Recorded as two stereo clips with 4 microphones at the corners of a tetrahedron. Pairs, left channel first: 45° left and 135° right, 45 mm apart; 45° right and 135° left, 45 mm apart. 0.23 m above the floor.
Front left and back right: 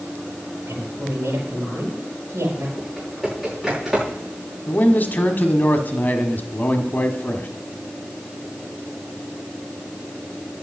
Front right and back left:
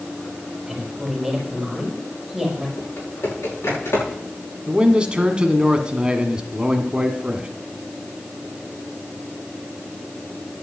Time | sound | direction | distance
0.7 | a woman speaking | 140° right | 5 m
2.8 | typing on a keyboard | 50° right | 7.5 m
4.7 | a man speaking | 75° left | 1.5 m